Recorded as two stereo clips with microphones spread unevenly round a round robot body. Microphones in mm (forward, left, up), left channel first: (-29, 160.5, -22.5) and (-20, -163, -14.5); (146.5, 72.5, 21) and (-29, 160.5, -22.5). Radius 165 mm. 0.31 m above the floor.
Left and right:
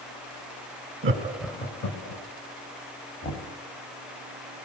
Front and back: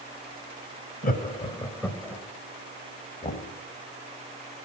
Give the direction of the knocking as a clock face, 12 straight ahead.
11 o'clock.